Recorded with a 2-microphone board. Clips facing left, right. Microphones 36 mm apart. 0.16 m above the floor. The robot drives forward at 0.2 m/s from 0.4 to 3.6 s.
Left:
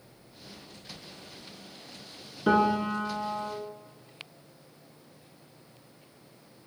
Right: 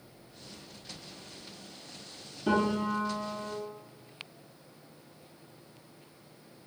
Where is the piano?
45° left (ahead or behind), 0.9 m; by 3.5 s 50° left (ahead or behind), 0.8 m.